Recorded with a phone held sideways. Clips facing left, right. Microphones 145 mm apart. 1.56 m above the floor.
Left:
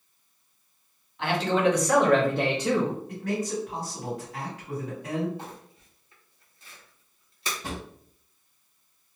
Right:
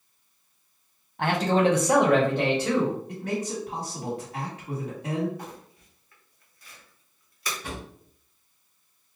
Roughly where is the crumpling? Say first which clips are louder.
Right 1 dB; left.